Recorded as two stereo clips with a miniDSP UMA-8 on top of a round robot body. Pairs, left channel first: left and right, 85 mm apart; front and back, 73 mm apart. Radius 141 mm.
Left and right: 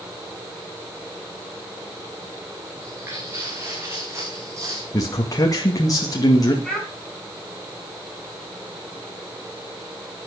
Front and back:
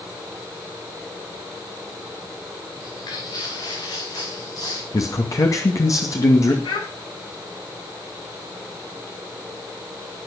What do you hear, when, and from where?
2.8 s footsteps: 25° right, 5 m; by 4.8 s 35° right, 3.5 m
4.9 s a man speaking: 45° left, 2.5 m
6.6 s a child speaking: 5° left, 7 m